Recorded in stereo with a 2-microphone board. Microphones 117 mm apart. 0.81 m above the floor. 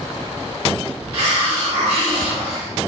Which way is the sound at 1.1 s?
55° right (ahead or behind).